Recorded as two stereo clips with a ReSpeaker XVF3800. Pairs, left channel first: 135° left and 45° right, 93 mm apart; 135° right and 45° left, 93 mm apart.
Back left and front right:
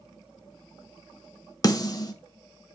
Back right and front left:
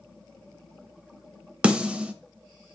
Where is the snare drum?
120° left, 0.8 m.